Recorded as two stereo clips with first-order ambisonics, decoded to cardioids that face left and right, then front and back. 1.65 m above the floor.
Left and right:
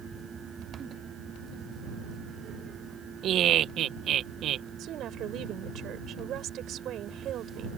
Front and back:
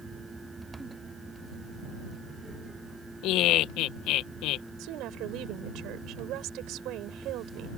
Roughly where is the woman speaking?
Behind right.